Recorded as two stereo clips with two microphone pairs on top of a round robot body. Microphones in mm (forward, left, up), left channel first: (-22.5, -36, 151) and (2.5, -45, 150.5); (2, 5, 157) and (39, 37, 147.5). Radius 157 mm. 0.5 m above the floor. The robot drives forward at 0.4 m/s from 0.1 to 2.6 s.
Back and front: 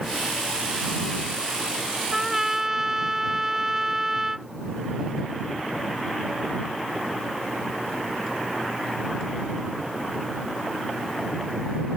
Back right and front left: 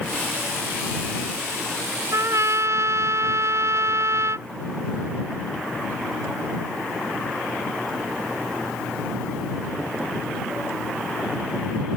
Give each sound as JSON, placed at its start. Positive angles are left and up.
{"t": 2.1, "sound": "a trumpet", "azimuth_deg": 60}